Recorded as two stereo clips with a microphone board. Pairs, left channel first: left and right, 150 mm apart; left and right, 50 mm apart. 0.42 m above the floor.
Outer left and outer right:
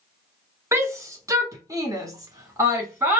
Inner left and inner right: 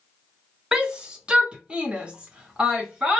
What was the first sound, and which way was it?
A shout, 20° right (ahead or behind).